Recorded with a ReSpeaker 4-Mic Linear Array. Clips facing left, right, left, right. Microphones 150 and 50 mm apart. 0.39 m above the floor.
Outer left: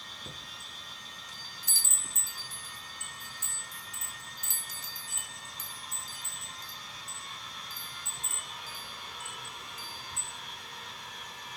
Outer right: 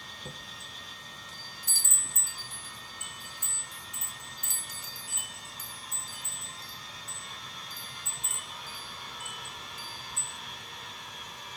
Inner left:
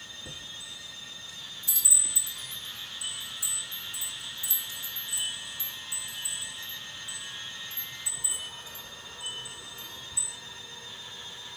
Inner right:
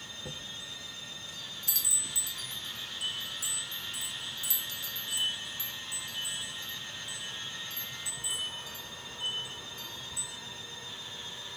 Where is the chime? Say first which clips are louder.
Outer right 4 dB, inner right 2 dB; 60° right (ahead or behind), 3.5 m.